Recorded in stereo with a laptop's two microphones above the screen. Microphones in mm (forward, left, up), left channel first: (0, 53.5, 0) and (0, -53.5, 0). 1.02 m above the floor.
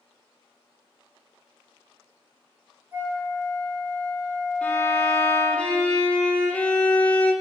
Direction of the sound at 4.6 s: 15° left (ahead or behind).